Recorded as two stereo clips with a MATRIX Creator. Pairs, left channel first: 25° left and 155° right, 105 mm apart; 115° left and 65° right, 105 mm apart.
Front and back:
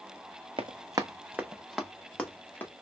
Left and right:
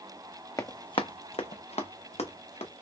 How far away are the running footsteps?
About 0.5 m.